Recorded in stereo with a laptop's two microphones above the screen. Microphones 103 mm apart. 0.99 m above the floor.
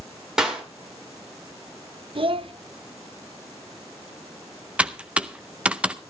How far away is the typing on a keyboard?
About 0.6 m.